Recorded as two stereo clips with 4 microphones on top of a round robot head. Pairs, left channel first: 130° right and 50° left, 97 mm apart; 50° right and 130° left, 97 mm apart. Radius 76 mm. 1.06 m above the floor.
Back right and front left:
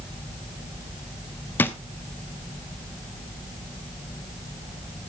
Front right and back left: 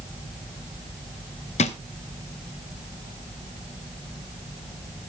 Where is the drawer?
60° right, 0.9 m.